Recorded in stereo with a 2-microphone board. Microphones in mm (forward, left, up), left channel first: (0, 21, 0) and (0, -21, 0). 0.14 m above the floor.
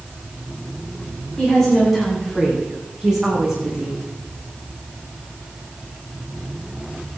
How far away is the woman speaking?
About 8.5 m.